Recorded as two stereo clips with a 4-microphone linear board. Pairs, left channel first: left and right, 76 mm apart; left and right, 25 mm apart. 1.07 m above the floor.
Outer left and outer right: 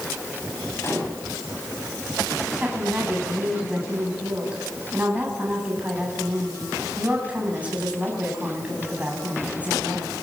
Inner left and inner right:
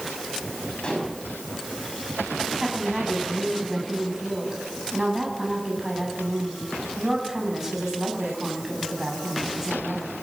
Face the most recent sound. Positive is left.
turn(degrees=-20)  # may be behind; listen again after turning